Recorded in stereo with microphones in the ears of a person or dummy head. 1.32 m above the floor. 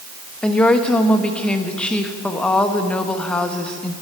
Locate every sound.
0.4 s a woman speaking: 10° left (ahead or behind), 1.2 m